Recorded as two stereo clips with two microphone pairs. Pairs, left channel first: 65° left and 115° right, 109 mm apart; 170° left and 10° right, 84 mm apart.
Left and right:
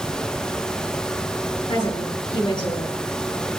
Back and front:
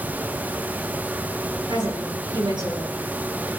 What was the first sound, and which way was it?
A woman speaking, 15° left.